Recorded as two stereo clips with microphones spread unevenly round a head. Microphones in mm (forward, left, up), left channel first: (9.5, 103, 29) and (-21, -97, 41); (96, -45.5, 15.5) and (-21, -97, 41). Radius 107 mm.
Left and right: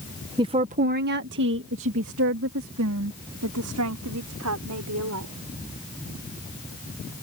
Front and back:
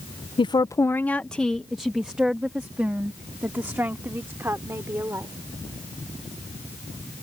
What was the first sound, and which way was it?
A woman speaking, 30° right.